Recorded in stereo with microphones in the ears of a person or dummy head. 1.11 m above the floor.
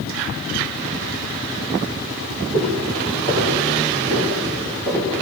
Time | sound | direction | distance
2.5 | footsteps | 70° right (ahead or behind) | 8.5 m